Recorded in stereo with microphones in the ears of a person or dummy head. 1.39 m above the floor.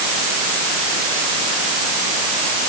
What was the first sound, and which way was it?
Only background noise.